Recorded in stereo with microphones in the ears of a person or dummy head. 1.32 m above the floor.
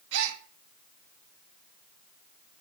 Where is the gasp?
75° right (ahead or behind), 1.4 m.